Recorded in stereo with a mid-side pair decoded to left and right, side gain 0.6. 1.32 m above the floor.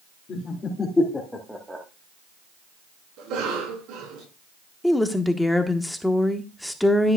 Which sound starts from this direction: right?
A cough, at 3.2 s.